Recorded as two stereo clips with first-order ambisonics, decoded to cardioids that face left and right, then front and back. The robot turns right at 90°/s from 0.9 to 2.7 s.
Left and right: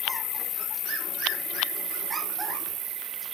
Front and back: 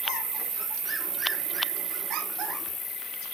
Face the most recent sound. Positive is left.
turn(degrees=-65)